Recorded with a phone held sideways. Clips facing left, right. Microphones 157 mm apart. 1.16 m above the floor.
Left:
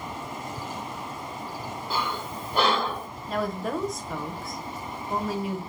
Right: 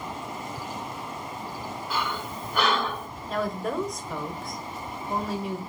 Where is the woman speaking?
Centre (ahead or behind), 0.8 m.